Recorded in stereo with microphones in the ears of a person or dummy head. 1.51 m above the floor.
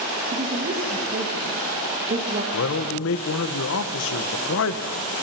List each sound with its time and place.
0.3 s a woman speaking: 40° right (ahead or behind), 2.5 m
2.5 s a man speaking: 70° left (ahead or behind), 1.3 m